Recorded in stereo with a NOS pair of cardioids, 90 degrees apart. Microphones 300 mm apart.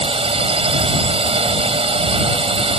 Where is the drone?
20° right.